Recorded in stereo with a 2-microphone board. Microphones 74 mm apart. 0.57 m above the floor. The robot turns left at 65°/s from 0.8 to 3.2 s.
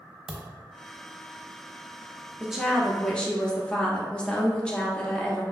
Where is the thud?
5° right (ahead or behind), 0.6 m.